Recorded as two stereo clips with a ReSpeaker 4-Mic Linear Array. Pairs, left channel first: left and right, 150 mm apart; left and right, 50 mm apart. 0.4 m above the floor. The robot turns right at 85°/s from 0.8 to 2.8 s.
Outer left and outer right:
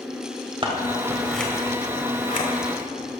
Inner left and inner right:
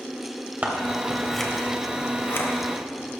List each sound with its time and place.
0.6 s scissors: 35° right (ahead or behind), 1.4 m; by 2.5 s 60° left (ahead or behind), 1.4 m